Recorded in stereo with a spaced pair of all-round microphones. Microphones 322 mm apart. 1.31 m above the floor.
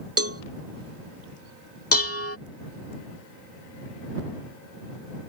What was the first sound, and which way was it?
A cowbell, 45° right (ahead or behind).